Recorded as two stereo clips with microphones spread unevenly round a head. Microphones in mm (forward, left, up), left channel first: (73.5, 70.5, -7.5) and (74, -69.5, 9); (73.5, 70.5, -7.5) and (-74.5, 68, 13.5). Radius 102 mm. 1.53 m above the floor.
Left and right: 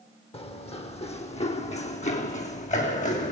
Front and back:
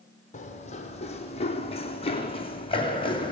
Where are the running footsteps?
40° left, 4 m; by 3.3 s 60° left, 6 m.